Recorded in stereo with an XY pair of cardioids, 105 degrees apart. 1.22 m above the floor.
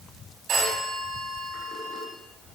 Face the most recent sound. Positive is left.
turn(degrees=-65)